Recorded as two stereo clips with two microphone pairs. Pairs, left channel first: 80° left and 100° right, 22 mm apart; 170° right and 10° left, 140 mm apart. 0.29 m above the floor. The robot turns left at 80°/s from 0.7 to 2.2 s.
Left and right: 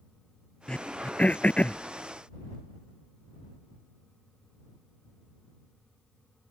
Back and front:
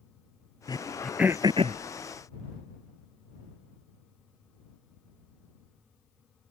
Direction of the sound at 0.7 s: 135° left.